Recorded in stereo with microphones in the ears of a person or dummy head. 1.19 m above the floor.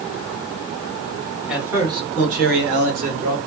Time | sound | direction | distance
1.5 | a man speaking | centre (ahead or behind) | 0.9 m